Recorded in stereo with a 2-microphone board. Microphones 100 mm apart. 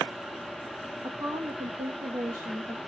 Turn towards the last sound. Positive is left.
turn(degrees=-20)  # may be behind; listen again after turning